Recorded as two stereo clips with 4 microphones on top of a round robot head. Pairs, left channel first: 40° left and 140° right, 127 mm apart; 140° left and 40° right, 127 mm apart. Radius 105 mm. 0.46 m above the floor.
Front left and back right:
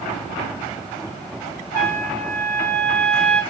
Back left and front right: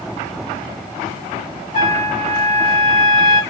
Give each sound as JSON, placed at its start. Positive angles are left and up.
{"t": 1.7, "sound": "a trumpet", "azimuth_deg": 115, "distance_m": 2.0}